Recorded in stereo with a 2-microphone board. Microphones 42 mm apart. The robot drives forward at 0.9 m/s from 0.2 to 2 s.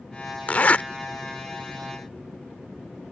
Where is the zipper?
40° left (ahead or behind); by 0.8 s 35° left (ahead or behind).